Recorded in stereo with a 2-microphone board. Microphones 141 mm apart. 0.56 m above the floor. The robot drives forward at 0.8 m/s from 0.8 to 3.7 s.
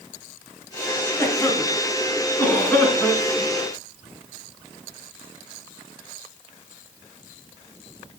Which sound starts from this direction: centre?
A cough, at 1.2 s.